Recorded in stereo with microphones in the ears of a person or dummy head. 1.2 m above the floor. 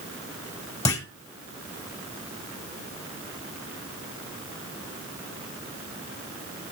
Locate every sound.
0.8 s a clunk: 20° left (ahead or behind), 2 m